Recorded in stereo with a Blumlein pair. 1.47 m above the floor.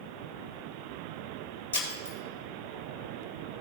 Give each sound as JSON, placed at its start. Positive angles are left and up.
{"t": 1.7, "sound": "breaking glass", "azimuth_deg": 65, "distance_m": 2.5}